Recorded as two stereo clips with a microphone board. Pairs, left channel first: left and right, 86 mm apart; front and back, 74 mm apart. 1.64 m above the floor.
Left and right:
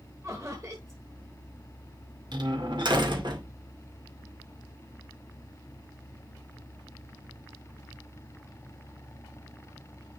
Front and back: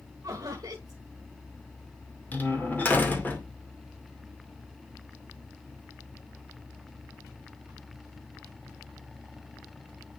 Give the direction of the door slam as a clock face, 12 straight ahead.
2 o'clock.